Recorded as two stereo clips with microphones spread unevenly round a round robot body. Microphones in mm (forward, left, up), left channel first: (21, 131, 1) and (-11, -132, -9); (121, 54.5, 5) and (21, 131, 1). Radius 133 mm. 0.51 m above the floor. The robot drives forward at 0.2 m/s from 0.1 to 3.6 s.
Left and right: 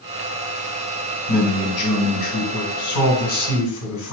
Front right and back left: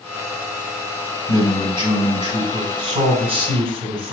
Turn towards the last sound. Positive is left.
turn(degrees=115)